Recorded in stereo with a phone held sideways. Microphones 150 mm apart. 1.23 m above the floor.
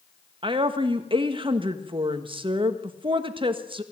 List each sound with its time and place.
0.4 s a woman speaking: 35° right (ahead or behind), 1.7 m